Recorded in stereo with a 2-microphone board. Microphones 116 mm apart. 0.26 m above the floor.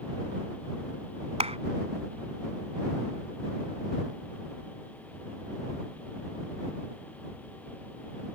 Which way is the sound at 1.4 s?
60° right (ahead or behind).